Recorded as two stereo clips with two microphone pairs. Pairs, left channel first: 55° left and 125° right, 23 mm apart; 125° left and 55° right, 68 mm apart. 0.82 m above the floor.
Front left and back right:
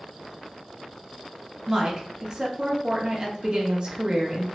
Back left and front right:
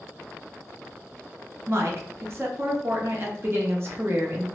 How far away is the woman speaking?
About 0.7 m.